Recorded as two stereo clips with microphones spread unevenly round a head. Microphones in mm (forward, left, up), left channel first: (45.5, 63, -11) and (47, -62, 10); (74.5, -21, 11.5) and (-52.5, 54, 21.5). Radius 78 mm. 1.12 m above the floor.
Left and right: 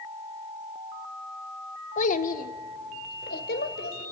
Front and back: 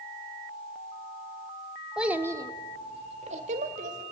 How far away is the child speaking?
About 1.3 m.